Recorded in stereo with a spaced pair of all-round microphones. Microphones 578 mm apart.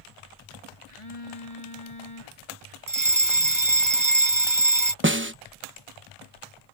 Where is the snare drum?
20° right (ahead or behind).